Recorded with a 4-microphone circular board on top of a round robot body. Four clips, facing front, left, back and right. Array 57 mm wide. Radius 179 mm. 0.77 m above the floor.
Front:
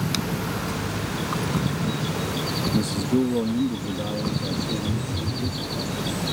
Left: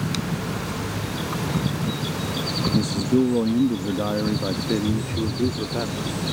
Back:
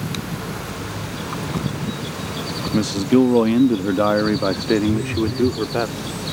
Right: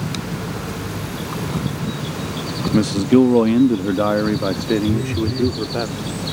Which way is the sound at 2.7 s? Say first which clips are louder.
Right 7 dB, back 8 dB; 115° right.